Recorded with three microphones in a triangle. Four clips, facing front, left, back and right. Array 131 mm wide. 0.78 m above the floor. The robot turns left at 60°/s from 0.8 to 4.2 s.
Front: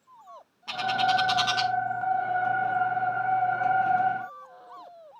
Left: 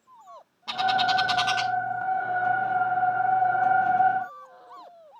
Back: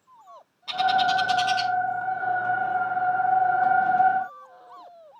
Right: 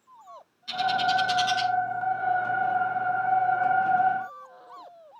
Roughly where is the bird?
Left.